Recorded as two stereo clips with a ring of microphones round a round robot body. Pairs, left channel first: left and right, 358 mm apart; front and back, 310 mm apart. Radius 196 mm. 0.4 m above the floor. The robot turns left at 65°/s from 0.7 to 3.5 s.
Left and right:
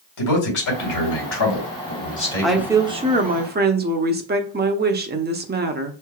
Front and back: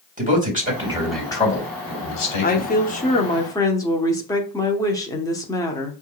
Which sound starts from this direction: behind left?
A man speaking, at 0.2 s.